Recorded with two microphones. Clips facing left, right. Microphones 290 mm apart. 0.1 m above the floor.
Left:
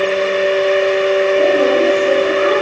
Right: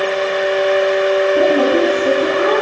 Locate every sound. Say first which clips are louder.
1.4 s a woman speaking: right 1 dB; 65° right (ahead or behind), 5 m; by 2.6 s 60° right (ahead or behind), 5.5 m